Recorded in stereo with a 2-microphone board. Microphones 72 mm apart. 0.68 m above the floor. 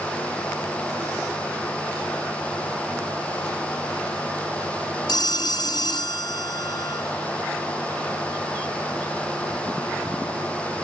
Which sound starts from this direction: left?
A phone ringing, at 5.1 s.